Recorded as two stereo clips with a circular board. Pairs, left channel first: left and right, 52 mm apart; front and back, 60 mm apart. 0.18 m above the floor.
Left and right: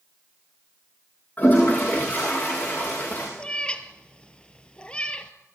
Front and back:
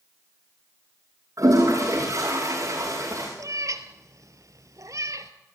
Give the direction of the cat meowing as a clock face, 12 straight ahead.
7 o'clock.